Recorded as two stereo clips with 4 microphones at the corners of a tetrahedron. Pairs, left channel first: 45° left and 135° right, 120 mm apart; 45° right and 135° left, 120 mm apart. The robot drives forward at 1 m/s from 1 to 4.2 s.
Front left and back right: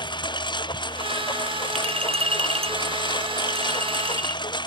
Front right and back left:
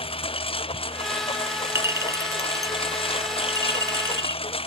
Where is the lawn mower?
5° right.